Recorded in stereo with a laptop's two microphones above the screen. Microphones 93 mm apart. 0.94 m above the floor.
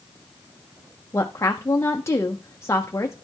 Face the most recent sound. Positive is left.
turn(degrees=30)  # may be behind; listen again after turning